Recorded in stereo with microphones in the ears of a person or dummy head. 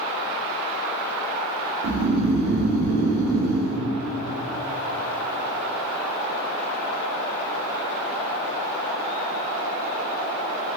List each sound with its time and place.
1.8 s snoring: 75° right (ahead or behind), 1.8 m